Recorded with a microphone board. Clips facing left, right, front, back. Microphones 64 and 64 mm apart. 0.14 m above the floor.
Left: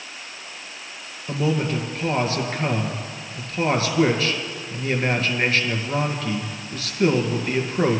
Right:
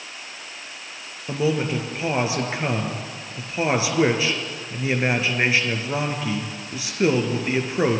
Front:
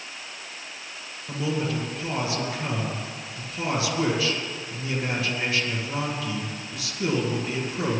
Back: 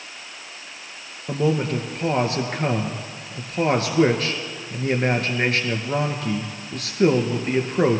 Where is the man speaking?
160° right, 2 m.